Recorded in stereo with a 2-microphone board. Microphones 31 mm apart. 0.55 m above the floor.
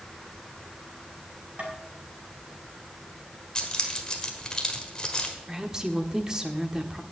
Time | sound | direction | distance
1.6 | tapping | 50° right (ahead or behind) | 5 m
3.5 | keys jangling | 25° left (ahead or behind) | 1.5 m
5.5 | a woman speaking | 20° right (ahead or behind) | 1.2 m